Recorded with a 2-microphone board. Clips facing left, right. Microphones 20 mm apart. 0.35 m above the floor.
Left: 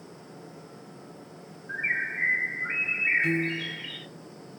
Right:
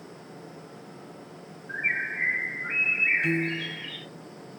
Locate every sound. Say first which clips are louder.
1.7 s a bird: right 1 dB; centre (ahead or behind), 1.7 m
3.2 s a piano: even; 20° right (ahead or behind), 1.9 m